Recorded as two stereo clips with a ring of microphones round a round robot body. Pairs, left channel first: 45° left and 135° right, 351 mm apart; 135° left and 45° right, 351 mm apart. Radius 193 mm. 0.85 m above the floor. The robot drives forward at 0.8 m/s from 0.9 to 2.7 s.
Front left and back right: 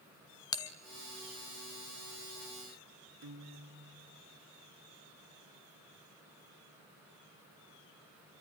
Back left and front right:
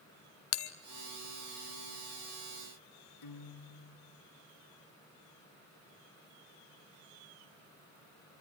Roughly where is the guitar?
Behind.